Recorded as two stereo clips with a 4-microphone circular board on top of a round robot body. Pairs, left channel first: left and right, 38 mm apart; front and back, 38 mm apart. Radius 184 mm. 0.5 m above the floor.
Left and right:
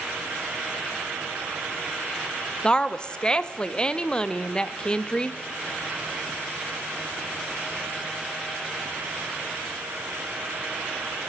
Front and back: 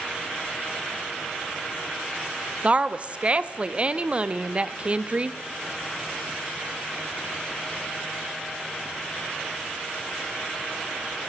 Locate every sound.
2.6 s a woman speaking: 145° left, 0.8 m